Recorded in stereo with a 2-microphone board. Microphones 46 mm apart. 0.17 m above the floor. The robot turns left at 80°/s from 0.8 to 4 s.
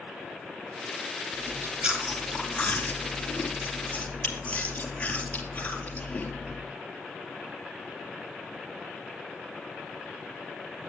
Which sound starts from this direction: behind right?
Chewing, at 1.3 s.